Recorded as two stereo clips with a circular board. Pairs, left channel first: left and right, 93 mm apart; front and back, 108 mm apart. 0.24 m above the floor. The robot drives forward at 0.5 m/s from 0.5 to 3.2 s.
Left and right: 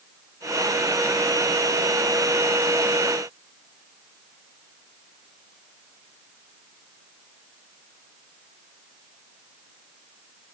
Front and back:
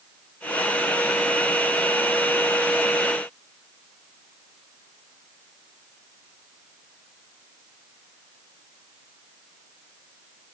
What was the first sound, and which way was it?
Only background noise.